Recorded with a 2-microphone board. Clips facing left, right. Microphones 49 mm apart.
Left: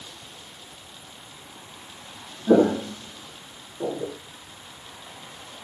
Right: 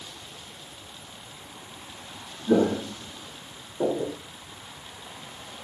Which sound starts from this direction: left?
Footsteps, at 2.5 s.